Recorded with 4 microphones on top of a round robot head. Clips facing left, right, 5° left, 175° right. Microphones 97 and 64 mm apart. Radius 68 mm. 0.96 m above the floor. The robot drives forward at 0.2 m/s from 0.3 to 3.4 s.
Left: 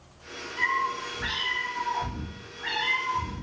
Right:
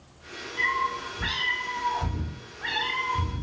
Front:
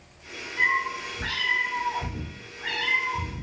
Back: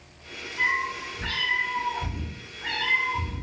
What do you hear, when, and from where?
0.6 s a cat meowing: 45° right, 1.2 m; by 3.4 s 85° right, 1.0 m